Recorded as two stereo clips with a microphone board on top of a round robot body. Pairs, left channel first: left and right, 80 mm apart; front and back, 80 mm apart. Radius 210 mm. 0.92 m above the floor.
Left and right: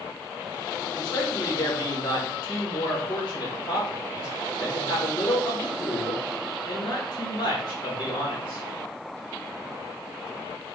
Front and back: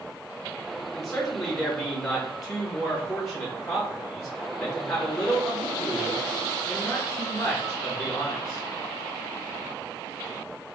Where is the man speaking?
55° left, 2 m.